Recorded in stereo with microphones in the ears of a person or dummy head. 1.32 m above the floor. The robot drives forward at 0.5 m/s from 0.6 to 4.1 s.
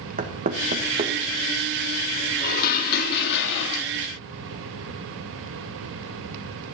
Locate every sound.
0.2 s knocking: 40° right (ahead or behind), 1.4 m; by 1.1 s 35° right (ahead or behind), 1.6 m
2.4 s dishes clattering: 45° left (ahead or behind), 1.8 m; by 3.9 s 65° left (ahead or behind), 1.4 m